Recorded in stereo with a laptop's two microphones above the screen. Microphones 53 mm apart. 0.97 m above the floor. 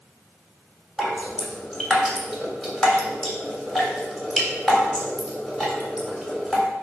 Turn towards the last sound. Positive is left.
turn(degrees=10)  # may be behind; listen again after turning